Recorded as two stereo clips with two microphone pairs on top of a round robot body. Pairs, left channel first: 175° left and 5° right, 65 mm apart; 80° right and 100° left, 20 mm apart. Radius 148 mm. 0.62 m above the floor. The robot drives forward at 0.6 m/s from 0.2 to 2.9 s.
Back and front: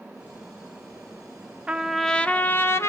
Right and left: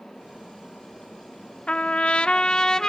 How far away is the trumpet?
About 0.6 m.